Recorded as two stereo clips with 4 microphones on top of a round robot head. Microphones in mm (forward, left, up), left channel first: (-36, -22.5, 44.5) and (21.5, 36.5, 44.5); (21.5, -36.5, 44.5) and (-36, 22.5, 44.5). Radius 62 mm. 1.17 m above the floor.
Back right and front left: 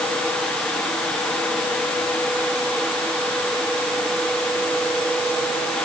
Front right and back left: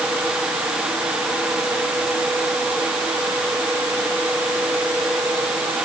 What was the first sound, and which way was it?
Only background noise.